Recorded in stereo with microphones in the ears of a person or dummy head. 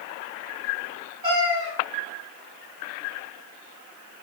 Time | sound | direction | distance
1.2 | a cat meowing | 30° right (ahead or behind) | 1.5 m